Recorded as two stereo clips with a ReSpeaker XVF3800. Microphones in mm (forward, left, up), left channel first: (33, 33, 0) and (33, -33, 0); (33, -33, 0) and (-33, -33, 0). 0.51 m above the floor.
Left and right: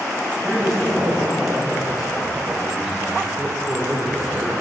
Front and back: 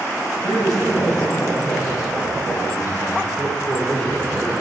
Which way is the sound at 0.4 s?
Straight ahead.